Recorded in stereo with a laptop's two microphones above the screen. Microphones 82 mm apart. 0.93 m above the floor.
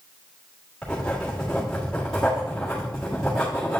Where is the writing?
10° left (ahead or behind), 1.9 m.